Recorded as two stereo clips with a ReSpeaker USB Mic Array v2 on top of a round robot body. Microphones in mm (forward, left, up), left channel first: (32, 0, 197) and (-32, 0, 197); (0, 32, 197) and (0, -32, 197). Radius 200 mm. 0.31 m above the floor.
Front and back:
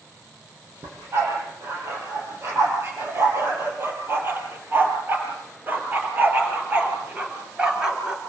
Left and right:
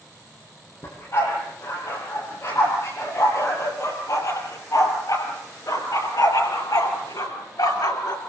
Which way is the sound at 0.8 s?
130° left.